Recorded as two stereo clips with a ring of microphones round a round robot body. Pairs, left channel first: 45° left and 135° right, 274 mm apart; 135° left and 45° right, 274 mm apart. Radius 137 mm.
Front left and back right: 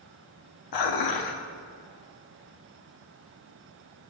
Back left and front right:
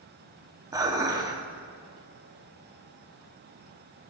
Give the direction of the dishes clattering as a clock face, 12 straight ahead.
11 o'clock.